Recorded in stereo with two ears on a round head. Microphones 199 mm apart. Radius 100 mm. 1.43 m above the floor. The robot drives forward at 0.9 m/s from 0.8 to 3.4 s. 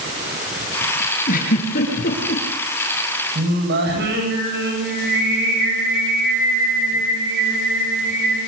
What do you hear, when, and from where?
1.3 s a giggle: 35° left (ahead or behind), 8.5 m; by 2.4 s 40° left (ahead or behind), 7.5 m
3.4 s singing: 50° right (ahead or behind), 8.5 m